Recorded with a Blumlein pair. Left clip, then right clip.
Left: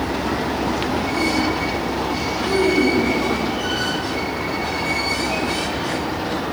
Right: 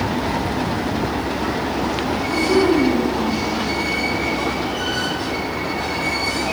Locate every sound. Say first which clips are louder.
2.4 s a child speaking: right 1 dB; straight ahead, 4 m; by 3.4 s 15° left, 5 m